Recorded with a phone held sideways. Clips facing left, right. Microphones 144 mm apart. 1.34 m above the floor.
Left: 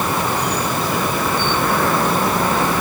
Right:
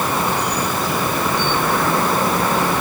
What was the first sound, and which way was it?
Only background noise.